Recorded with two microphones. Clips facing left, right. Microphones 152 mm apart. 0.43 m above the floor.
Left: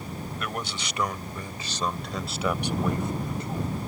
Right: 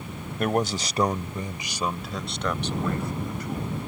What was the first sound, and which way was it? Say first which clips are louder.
A man speaking: right 13 dB; 50° right (ahead or behind).